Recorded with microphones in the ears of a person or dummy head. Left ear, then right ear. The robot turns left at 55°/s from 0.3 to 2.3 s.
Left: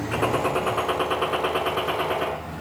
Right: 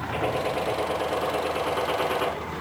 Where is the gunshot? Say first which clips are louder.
Left 4 dB; 95° left, 4 m; by 2.3 s 15° right, 4 m.